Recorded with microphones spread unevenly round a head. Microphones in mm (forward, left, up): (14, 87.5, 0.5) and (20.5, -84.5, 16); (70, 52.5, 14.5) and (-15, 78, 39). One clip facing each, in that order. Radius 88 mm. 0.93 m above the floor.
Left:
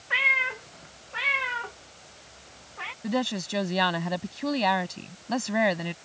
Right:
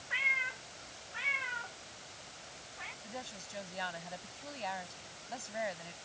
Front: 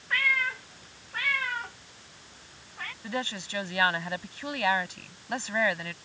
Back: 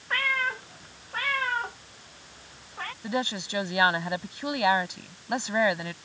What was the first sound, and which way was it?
A cat meowing, 115° left.